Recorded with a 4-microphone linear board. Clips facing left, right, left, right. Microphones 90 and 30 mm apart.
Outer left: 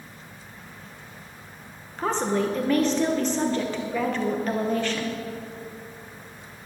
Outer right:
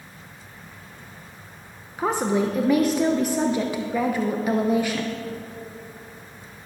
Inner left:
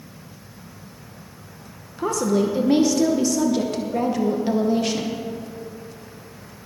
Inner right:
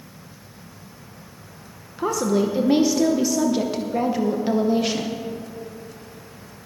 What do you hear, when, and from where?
2.0 s a woman speaking: 10° right (ahead or behind), 0.7 m